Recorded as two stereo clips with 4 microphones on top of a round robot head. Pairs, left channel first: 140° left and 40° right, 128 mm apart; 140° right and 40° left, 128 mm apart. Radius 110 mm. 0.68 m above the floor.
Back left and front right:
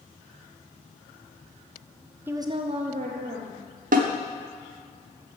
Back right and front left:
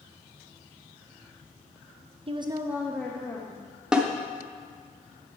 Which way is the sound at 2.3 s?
30° left.